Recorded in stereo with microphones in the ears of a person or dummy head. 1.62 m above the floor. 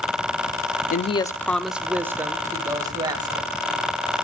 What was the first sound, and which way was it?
A woman speaking, 55° left (ahead or behind).